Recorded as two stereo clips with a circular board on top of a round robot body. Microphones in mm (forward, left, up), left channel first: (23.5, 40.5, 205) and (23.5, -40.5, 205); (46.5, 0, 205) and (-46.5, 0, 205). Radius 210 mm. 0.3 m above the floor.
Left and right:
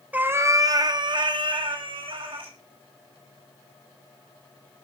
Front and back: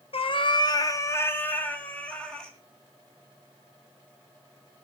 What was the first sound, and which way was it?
A cat meowing, 20° right.